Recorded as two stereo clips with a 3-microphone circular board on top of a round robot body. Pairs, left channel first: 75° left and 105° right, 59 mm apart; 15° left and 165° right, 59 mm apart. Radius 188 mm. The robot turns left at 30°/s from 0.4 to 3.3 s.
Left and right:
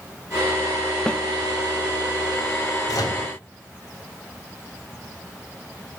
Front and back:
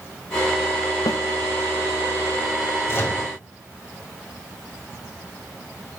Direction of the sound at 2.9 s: 65° left.